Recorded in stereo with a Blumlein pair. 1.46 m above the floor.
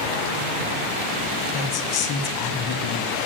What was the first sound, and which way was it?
A woman speaking, 40° left.